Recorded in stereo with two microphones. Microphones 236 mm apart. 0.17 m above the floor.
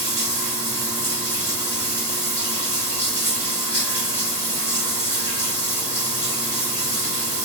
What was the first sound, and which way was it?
Running water, 50° left (ahead or behind).